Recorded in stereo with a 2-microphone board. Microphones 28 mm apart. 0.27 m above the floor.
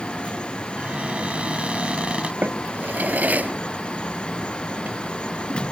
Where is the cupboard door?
45° right (ahead or behind).